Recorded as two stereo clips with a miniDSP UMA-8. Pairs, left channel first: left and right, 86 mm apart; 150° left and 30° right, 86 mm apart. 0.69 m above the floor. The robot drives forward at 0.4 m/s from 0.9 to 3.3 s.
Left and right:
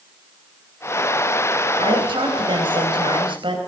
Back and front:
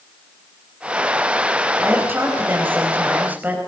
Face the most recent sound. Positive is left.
turn(degrees=-100)